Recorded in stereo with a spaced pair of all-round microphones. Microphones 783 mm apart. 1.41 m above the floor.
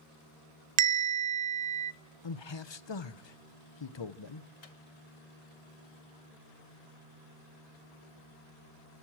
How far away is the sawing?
No sawing in this recording.